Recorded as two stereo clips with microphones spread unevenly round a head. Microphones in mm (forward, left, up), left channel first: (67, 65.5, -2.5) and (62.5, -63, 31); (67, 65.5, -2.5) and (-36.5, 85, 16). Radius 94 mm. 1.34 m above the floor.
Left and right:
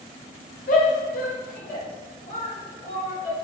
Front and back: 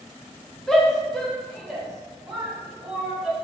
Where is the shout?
75° left, 1.0 m; by 3.3 s 80° left, 2.5 m.